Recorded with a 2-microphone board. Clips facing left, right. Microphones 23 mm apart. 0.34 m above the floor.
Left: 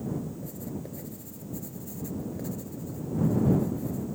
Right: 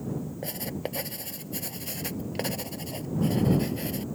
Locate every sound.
0.4 s writing: 85° right